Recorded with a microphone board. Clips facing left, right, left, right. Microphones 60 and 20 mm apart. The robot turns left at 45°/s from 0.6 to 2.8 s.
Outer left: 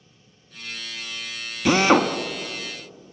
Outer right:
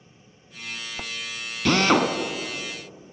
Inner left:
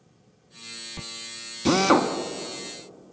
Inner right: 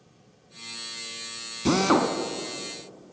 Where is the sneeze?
I don't hear a sneeze.